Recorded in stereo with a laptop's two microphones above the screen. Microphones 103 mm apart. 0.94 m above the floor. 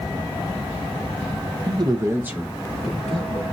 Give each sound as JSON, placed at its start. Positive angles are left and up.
{"t": 1.7, "sound": "a man speaking", "side_deg": -45, "distance_m": 0.6}